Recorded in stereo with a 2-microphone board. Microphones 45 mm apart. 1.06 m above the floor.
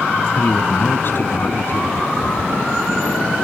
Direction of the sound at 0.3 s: 55° left (ahead or behind).